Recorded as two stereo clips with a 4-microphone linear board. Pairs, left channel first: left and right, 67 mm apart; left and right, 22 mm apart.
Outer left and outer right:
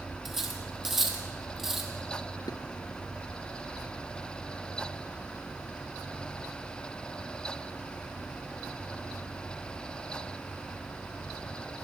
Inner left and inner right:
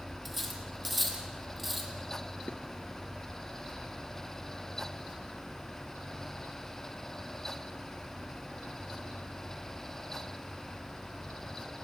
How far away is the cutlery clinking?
About 3.5 m.